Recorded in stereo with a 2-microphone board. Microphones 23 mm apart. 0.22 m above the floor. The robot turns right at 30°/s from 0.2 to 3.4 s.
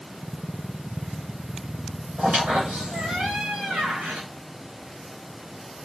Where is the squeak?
120° right, 6 m; by 4.3 s 85° right, 6 m.